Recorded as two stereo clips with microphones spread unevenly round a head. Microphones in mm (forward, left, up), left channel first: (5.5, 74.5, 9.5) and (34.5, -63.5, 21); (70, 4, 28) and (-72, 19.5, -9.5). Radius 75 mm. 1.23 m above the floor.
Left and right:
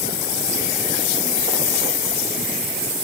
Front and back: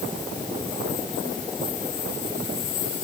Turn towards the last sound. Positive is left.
No sound to turn to.